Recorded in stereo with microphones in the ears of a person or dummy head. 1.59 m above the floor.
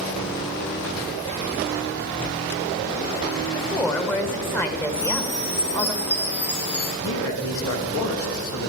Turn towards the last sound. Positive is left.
turn(degrees=85)